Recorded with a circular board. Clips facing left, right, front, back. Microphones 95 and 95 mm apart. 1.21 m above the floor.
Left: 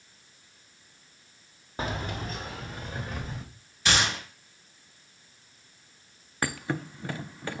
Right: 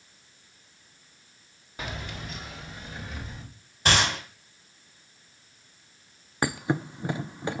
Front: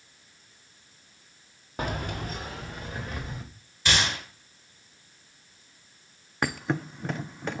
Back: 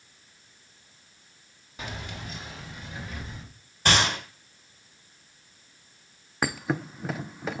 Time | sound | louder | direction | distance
1.8 | keys jangling | left 5 dB, front 7 dB | 35° left | 1.3 m
3.9 | a gunshot | right 2 dB, back 3 dB | 135° right | 5 m
6.4 | a thud | right 4 dB, even | 95° right | 0.6 m